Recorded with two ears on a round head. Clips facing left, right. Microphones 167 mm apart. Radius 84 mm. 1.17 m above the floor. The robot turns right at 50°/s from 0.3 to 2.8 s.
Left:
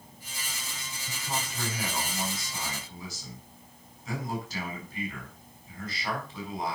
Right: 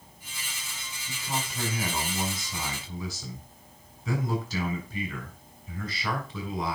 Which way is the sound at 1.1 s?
175° left.